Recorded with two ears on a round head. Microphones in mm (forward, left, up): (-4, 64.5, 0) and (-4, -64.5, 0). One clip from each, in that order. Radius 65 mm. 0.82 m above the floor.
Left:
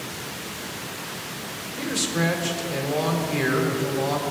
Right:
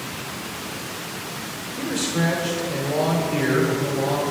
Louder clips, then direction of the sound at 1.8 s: Even; 35° left (ahead or behind).